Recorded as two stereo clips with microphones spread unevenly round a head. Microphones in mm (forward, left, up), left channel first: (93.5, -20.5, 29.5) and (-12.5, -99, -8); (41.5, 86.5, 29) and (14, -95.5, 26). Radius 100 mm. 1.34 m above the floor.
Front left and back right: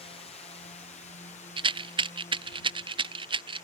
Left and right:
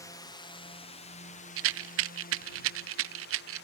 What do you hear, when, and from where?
0.0 s a drone: 30° left; by 3.7 s 90° left
1.6 s a rattle: 90° right